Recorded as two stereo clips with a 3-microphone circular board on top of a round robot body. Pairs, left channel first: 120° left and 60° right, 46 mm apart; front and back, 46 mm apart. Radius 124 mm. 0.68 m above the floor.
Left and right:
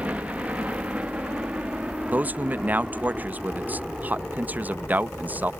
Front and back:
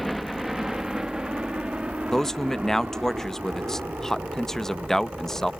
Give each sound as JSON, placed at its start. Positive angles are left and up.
{"t": 0.0, "sound": "a helicopter", "azimuth_deg": -90}
{"t": 2.1, "sound": "a man speaking", "azimuth_deg": -75}